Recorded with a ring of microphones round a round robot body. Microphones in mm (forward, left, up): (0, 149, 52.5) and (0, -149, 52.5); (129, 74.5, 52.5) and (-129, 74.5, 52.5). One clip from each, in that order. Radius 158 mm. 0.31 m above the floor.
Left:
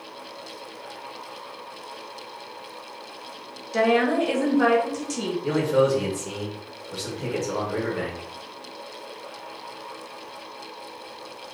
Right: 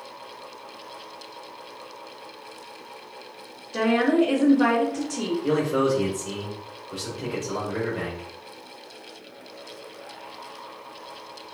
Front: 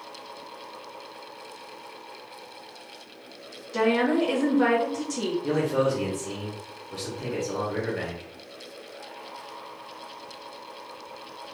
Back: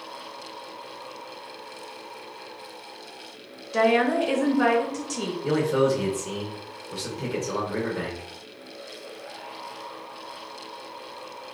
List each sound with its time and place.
3.7 s a woman speaking: 145° left, 1.3 m
5.4 s a man speaking: 170° left, 0.9 m